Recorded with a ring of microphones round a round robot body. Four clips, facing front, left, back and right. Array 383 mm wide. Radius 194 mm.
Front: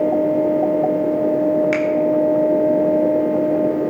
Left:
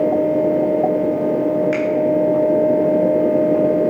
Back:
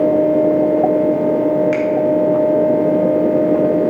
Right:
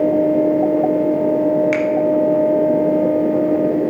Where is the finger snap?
50° right, 1.7 m.